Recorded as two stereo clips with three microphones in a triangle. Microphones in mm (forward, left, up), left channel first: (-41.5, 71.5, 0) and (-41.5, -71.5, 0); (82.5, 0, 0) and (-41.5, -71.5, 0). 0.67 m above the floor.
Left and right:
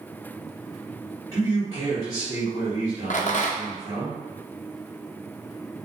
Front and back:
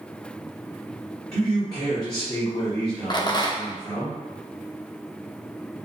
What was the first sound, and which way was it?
A man speaking, 30° right.